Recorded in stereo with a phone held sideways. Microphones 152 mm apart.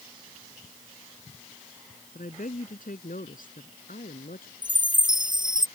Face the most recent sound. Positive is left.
turn(degrees=-30)  # may be behind; listen again after turning